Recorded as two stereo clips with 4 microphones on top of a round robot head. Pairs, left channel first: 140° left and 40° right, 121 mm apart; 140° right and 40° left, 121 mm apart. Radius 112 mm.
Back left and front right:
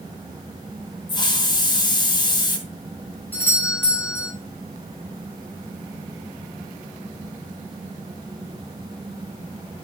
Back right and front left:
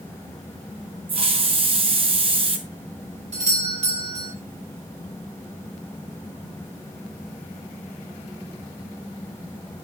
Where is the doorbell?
65° left, 5 m.